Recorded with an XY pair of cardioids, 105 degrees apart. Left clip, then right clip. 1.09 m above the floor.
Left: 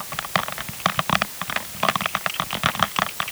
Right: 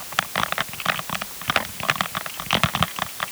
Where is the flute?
No flute in this recording.